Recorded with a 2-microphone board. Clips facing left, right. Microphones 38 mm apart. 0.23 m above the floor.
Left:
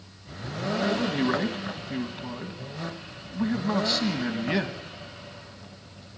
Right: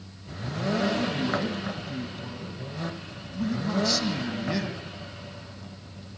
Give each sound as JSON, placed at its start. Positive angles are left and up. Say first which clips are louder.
{"t": 0.8, "sound": "a man speaking", "louder": "left 4 dB", "side_deg": 35, "distance_m": 1.7}